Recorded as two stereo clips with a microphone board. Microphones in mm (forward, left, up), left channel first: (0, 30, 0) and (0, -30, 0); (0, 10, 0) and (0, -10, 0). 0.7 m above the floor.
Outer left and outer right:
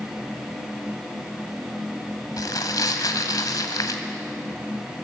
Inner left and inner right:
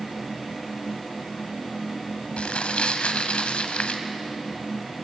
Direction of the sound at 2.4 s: 80° left.